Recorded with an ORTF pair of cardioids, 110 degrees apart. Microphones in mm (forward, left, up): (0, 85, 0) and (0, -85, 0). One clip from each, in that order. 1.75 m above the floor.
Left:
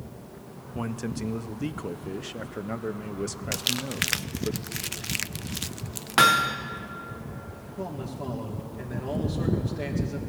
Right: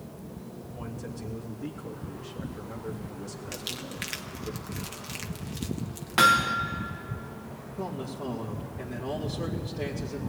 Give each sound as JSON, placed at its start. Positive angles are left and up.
{"t": 0.8, "sound": "a man speaking", "azimuth_deg": 65, "distance_m": 1.0}
{"t": 3.5, "sound": "crumpling", "azimuth_deg": 45, "distance_m": 0.5}
{"t": 6.2, "sound": "hammering", "azimuth_deg": 25, "distance_m": 1.3}
{"t": 7.8, "sound": "a man speaking", "azimuth_deg": 15, "distance_m": 2.5}